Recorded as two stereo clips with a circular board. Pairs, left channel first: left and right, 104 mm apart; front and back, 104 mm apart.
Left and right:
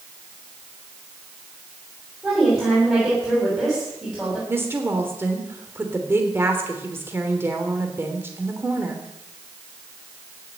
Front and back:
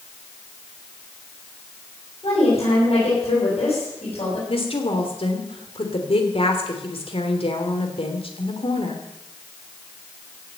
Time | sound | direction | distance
2.2 | a woman speaking | 10° right | 7 m
4.5 | a woman speaking | 25° right | 3 m